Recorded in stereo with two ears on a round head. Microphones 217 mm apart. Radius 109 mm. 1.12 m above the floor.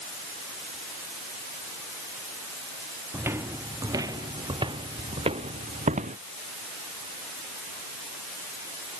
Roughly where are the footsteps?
Centre.